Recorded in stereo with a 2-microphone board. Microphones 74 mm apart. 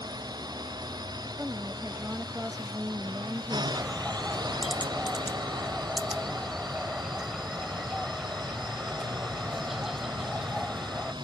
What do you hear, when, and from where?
0.0 s a drone: 65° right (ahead or behind); by 11.2 s 75° right (ahead or behind)
1.4 s a woman speaking: 25° right (ahead or behind)
3.7 s a bird: 5° right (ahead or behind)